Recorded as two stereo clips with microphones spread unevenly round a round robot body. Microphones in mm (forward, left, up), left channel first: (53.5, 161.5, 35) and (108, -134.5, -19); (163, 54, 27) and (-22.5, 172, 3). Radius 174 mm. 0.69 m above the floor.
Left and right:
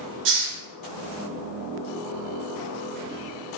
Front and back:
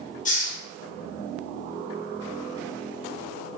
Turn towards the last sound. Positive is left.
turn(degrees=-90)